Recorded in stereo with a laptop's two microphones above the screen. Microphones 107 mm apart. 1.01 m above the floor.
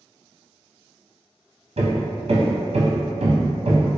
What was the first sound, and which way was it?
Hammering, 70° right (ahead or behind).